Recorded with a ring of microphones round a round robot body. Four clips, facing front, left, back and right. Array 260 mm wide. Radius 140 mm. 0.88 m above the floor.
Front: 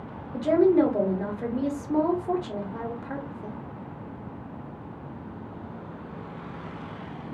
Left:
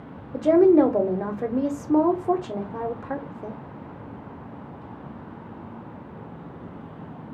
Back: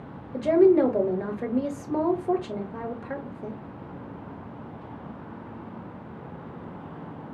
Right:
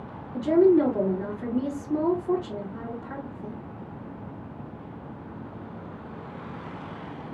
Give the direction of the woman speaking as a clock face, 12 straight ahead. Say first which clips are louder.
Left 3 dB, back 2 dB; 8 o'clock.